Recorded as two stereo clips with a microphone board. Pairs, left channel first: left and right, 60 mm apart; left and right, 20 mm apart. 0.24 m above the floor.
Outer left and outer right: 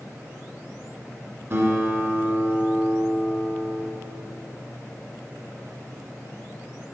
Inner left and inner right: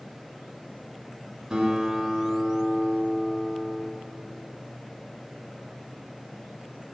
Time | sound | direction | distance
1.5 | a guitar | 45° right (ahead or behind) | 2 m